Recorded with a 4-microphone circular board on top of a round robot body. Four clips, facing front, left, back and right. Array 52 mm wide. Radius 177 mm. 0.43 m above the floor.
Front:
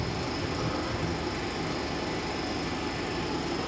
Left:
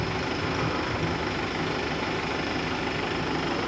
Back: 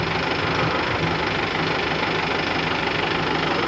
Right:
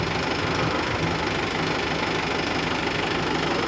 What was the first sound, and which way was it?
An engine running, 165° right.